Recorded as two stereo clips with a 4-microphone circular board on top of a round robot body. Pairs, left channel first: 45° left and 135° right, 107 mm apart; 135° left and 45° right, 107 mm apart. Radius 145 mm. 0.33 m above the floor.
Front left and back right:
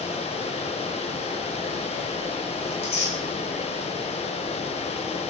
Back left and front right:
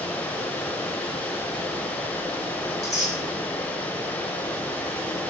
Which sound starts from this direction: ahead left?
Running water, at 0.0 s.